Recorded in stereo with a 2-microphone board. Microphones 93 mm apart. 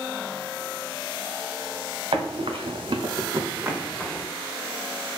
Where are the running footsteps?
80° right, 0.8 m; by 4.3 s 5° left (ahead or behind), 0.8 m.